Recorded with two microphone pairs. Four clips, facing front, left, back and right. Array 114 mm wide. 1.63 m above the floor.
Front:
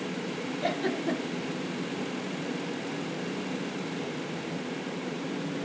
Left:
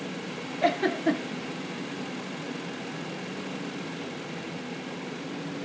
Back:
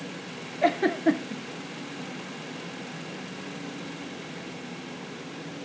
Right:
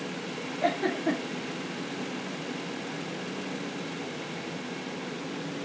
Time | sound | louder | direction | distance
0.6 | a giggle | left 3 dB, back 8 dB | 150° left | 1.8 m